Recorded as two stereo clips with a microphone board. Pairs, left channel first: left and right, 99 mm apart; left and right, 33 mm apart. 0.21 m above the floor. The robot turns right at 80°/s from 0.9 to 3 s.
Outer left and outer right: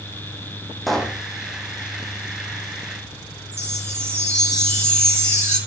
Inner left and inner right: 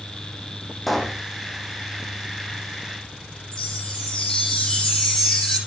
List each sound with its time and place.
0.9 s a pop: centre (ahead or behind), 1.4 m; by 1.2 s 25° left (ahead or behind), 1.4 m
3.5 s a chime: 15° left (ahead or behind), 9 m